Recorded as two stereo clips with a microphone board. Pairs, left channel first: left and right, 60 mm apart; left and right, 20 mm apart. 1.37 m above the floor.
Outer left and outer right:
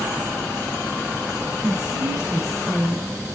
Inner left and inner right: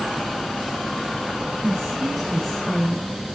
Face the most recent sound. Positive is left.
turn(degrees=-5)  # may be behind; listen again after turning